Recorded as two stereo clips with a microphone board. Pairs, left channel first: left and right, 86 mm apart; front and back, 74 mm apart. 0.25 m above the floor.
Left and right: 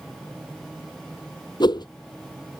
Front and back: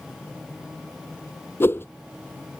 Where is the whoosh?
60° left.